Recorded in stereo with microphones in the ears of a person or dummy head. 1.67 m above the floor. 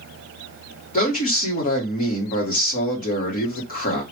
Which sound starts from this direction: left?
A man speaking, at 0.9 s.